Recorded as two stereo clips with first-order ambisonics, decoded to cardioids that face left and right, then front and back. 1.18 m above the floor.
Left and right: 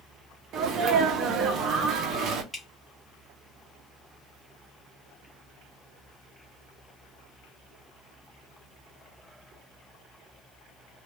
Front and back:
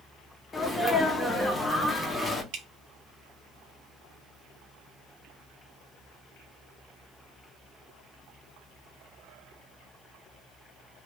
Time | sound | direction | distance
0.5 | a sneeze | 75° right | 0.5 m
2.5 | dripping | 175° left | 0.6 m